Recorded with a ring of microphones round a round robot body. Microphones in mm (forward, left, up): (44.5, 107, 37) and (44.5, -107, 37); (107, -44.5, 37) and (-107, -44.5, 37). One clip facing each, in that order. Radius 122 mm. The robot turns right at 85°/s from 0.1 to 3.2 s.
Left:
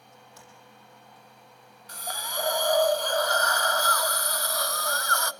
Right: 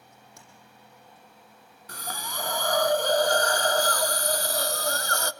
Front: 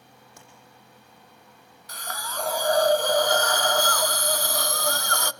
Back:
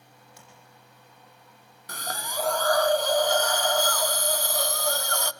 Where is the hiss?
140° right, 0.6 m; by 5.3 s 30° right, 0.6 m.